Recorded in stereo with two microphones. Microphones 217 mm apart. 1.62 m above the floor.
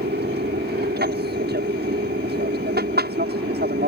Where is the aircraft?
55° right (ahead or behind).